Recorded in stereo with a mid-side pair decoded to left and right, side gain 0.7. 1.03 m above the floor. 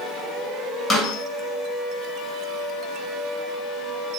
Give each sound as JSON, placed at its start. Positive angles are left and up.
{"t": 0.9, "sound": "a snare drum", "azimuth_deg": 15, "distance_m": 3.0}